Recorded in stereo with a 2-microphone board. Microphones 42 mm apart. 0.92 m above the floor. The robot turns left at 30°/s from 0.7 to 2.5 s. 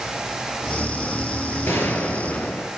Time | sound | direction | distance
1.7 | a gunshot | 75° left (ahead or behind) | 5 m